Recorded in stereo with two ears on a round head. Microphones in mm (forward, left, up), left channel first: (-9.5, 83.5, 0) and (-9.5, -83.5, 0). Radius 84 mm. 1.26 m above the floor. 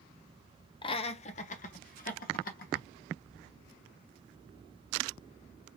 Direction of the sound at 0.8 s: 25° left (ahead or behind).